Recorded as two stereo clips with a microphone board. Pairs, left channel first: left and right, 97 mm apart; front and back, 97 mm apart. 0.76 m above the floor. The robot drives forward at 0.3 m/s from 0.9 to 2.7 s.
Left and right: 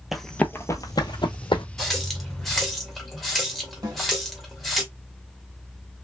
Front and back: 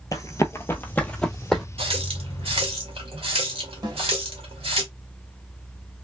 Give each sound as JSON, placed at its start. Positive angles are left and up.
{"t": 0.1, "sound": "running footsteps", "azimuth_deg": -5, "distance_m": 0.8}
{"t": 1.8, "sound": "a running tap", "azimuth_deg": 180, "distance_m": 1.3}
{"t": 3.8, "sound": "a snare drum", "azimuth_deg": -135, "distance_m": 1.8}